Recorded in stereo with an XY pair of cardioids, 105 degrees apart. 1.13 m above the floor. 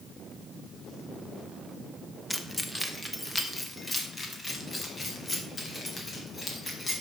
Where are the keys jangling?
5° left, 1.4 m; by 6.9 s 25° left, 5.5 m.